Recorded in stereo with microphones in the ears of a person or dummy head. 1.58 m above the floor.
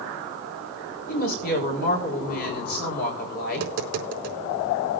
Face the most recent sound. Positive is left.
turn(degrees=-50)  # may be behind; listen again after turning